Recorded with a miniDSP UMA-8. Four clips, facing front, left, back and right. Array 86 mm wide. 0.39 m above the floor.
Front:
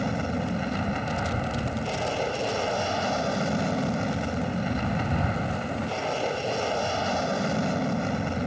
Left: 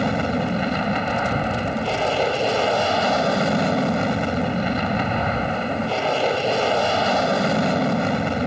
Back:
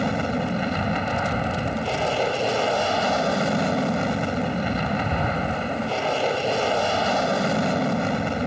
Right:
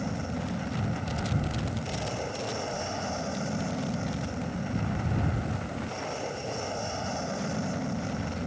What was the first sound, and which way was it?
An aircraft, 115° left.